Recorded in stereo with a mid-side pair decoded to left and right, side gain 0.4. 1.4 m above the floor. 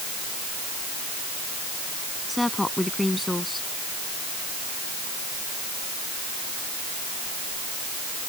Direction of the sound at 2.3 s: 10° left.